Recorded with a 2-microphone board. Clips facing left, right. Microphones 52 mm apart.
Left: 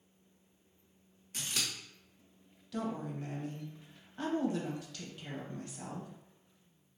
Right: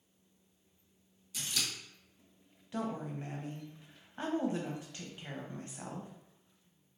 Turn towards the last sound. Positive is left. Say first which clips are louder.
# even
turn(degrees=-30)  # may be behind; listen again after turning